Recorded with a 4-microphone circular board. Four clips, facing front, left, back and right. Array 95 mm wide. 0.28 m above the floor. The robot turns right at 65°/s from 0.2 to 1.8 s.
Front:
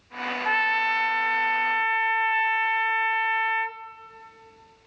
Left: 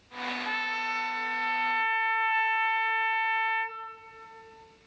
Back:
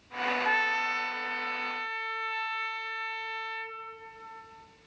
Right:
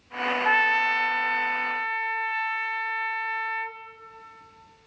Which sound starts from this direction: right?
A trumpet, at 0.5 s.